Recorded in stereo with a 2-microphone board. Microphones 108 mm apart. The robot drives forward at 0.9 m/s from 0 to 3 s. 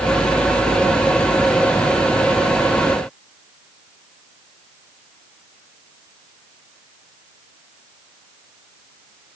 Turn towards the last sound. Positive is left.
No sound to turn to.